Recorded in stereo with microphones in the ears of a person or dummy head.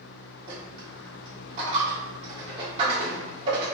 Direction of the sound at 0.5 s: 35° right (ahead or behind).